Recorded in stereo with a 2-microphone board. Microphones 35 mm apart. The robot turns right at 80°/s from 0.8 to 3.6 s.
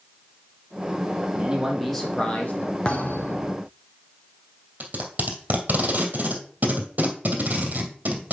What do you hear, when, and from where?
1.3 s a man speaking: 40° right, 3 m; by 2.8 s 75° left, 3 m
2.9 s a thud: 30° left, 1.5 m; by 3.6 s 90° left, 1.5 m
4.8 s tape being pulled: 50° right (ahead or behind), 2.5 m